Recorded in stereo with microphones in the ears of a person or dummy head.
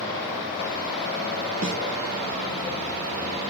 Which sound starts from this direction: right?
A snare drum, at 1.6 s.